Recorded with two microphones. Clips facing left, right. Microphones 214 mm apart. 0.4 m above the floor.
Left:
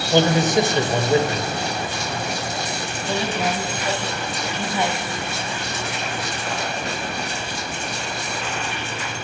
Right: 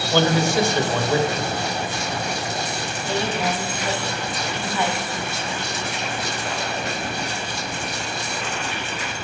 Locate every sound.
0.1 s a man speaking: 20° left (ahead or behind), 1.4 m
3.0 s a woman speaking: 20° left (ahead or behind), 3 m